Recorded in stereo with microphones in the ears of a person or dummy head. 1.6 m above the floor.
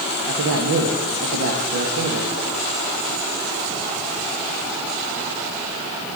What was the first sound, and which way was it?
A man speaking, 70° right (ahead or behind).